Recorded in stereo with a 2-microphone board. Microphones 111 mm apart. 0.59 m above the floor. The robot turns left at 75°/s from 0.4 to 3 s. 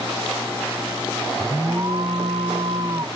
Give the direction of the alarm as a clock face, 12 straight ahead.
1 o'clock.